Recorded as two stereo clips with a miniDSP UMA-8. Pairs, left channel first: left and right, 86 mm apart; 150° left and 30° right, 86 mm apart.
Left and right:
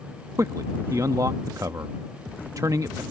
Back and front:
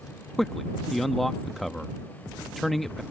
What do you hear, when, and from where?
0.4 s a man speaking: 125° right